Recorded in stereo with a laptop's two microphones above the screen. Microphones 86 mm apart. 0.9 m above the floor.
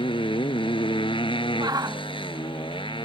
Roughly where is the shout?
Right.